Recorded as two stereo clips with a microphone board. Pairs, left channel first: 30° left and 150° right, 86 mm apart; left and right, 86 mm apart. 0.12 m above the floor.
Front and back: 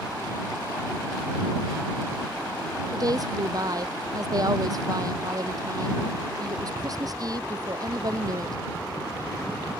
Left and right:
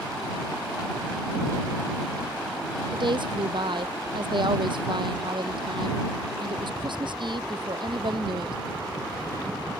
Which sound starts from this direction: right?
A woman speaking, at 2.9 s.